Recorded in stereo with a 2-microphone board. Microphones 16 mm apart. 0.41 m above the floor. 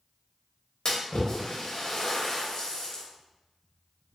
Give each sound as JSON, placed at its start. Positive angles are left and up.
{"t": 0.8, "sound": "a splash", "side_deg": 40, "distance_m": 0.8}